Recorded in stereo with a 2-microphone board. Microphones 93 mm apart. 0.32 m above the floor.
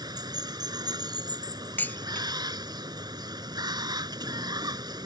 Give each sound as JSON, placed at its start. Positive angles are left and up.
{"t": 0.0, "sound": "running water", "side_deg": -45}
{"t": 1.8, "sound": "dishes clattering", "side_deg": 20}